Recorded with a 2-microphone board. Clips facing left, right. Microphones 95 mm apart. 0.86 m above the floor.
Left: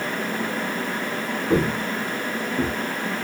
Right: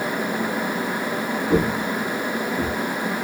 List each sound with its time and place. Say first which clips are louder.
1.5 s footsteps: even; 60° left (ahead or behind), 1.9 m; by 2.8 s 35° left (ahead or behind), 1.7 m